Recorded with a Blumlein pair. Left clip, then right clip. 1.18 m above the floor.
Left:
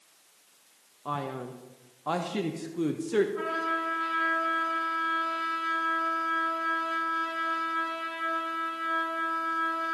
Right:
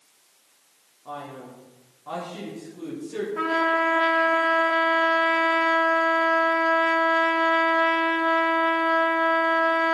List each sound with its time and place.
1.1 s a man speaking: 60° left, 1.1 m
3.4 s a trumpet: 60° right, 1.2 m